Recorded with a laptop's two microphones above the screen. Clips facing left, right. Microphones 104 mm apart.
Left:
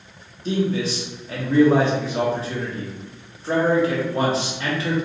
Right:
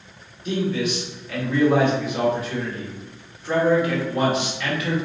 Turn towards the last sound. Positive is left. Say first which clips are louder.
# left 1 dB
turn(degrees=35)  # may be behind; listen again after turning